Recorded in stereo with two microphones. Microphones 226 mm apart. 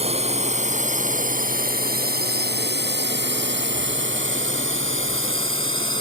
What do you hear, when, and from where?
0.0 s a drone: 30° right (ahead or behind); by 6.0 s 65° right (ahead or behind)